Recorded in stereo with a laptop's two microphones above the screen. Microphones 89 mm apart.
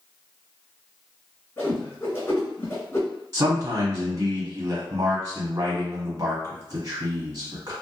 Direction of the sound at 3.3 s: 35° right (ahead or behind).